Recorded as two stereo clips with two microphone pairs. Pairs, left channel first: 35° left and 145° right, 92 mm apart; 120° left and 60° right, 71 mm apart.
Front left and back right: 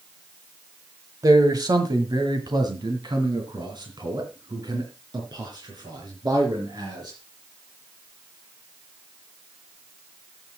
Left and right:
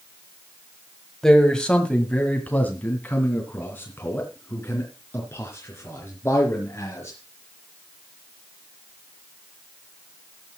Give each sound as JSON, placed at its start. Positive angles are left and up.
{"t": 1.2, "sound": "a man speaking", "azimuth_deg": -155, "distance_m": 1.5}